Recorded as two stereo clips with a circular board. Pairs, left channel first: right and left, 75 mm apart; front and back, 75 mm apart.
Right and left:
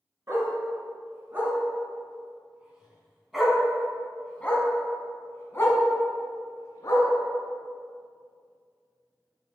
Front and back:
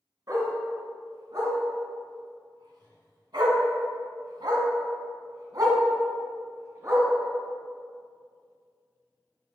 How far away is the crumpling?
No crumpling in this recording.